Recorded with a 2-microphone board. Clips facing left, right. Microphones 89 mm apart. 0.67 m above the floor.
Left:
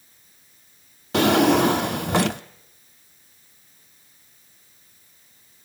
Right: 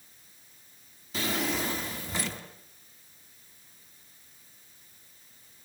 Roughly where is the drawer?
Left.